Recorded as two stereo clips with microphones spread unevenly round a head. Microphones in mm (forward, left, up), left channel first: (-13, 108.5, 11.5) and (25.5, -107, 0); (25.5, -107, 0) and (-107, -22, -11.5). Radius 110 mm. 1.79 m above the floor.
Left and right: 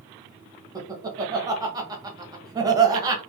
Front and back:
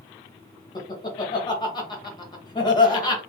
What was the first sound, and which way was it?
Laughter, 15° right.